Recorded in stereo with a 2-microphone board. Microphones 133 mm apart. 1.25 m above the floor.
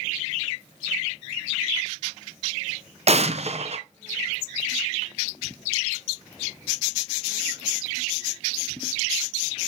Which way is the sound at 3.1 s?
55° right (ahead or behind).